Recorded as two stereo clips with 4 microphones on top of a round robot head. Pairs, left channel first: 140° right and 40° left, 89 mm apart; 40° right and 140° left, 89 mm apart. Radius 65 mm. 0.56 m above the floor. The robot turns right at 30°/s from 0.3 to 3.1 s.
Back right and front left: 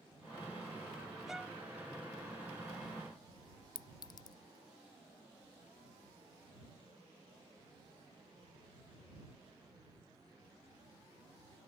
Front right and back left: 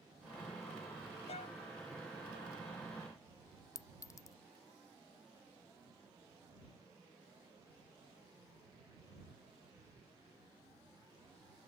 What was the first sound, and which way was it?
A violin, 45° right.